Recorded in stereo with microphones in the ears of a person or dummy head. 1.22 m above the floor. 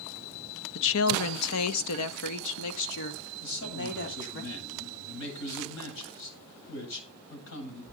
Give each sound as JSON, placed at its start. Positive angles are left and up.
{"t": 0.8, "sound": "a woman speaking", "side_deg": 60, "distance_m": 1.1}
{"t": 3.4, "sound": "a man speaking", "side_deg": 65, "distance_m": 8.0}